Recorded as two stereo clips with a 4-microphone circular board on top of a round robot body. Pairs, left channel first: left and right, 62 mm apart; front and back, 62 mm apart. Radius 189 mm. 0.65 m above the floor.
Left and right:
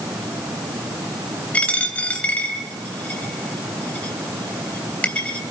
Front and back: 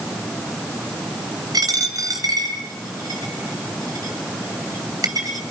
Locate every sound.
1.5 s a dropped coin: 160° left, 3.5 m